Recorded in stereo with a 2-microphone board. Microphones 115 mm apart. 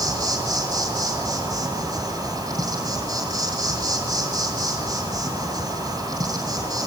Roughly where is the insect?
Right.